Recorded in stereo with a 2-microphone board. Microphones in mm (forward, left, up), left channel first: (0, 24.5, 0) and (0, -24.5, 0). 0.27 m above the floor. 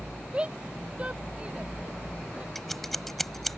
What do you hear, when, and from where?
0.3 s a shout: 20° right (ahead or behind); by 2.5 s 25° right (ahead or behind)
2.5 s scissors: 5° left (ahead or behind)